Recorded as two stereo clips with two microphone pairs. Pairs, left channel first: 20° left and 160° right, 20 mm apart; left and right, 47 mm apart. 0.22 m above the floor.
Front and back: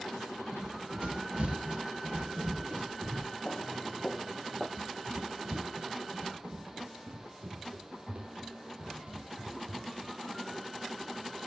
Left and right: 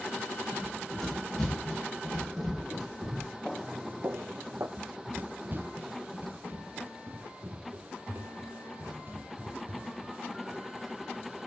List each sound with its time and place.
0.5 s running footsteps: 175° left, 6 m; by 3.3 s 175° right, 8.5 m
3.5 s footsteps: 10° left, 0.9 m; by 4.7 s 90° right, 1.5 m
4.8 s running footsteps: 140° right, 0.5 m